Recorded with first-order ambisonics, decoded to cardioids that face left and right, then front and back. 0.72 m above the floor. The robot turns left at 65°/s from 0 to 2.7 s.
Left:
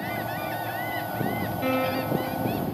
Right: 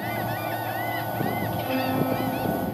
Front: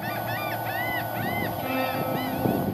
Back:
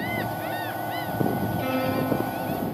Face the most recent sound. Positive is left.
turn(degrees=45)